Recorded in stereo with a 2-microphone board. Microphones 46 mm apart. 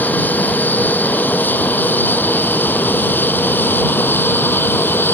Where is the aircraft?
40° left (ahead or behind); by 5.1 s 50° left (ahead or behind).